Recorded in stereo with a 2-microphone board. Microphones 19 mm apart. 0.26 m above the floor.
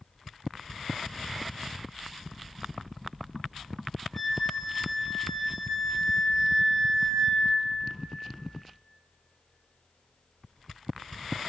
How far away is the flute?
About 1.3 m.